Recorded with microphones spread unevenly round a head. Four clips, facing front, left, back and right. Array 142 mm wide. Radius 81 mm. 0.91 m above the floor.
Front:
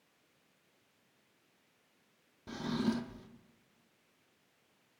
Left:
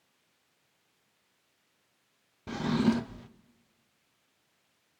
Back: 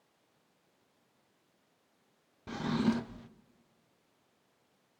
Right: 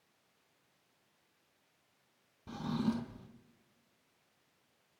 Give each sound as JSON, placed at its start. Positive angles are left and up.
{"t": 2.5, "sound": "a drawer", "azimuth_deg": 100, "distance_m": 0.6}